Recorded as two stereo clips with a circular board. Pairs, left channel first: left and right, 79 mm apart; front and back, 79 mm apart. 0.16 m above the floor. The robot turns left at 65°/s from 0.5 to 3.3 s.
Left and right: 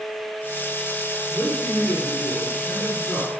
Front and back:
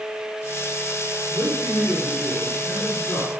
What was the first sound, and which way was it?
A man speaking, 150° left.